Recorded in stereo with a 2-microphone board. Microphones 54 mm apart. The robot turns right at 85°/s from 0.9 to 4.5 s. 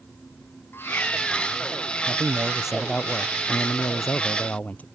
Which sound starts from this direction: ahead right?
A man speaking, at 2.1 s.